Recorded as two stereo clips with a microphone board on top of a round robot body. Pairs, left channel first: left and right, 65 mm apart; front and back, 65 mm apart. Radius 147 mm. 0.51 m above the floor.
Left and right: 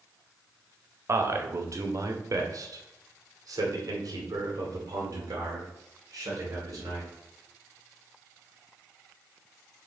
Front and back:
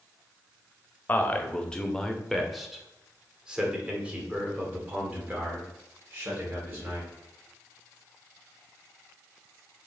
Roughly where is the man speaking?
Ahead right.